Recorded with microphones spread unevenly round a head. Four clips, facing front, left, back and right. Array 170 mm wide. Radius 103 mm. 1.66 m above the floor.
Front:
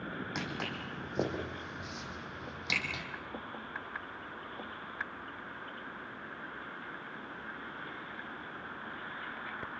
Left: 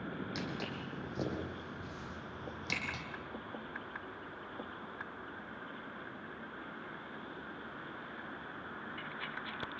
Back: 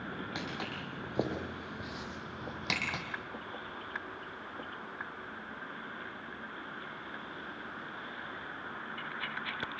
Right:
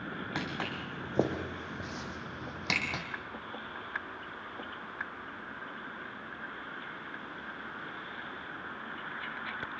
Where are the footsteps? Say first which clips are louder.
Right 4 dB, front 1 dB; 90° right, 5 m; by 3.0 s 120° right, 4 m.